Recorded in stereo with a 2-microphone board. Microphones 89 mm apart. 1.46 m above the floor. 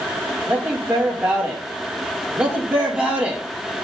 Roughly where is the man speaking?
Centre.